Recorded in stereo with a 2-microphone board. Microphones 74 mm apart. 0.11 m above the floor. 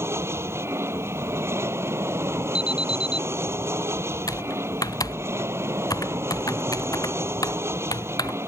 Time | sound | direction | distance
0.0 | an aircraft | 35° right (ahead or behind) | ?
2.5 | an alarm | 75° left (ahead or behind) | ?
4.3 | typing on a keyboard | 55° left (ahead or behind) | ?